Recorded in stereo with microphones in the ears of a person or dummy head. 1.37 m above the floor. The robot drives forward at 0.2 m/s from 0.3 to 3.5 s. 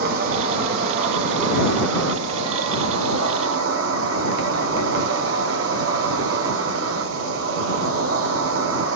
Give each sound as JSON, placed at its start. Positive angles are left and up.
{"t": 0.0, "sound": "an insect", "side_deg": -50, "distance_m": 0.9}